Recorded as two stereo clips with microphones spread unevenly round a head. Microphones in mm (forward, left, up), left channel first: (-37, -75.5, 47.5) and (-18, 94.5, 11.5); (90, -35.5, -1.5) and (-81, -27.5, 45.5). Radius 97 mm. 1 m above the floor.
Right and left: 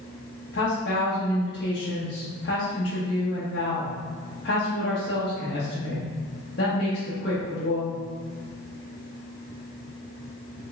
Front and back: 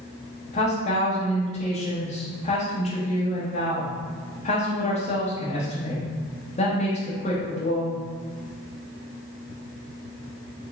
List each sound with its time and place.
0.5 s a woman speaking: 50° right, 1.0 m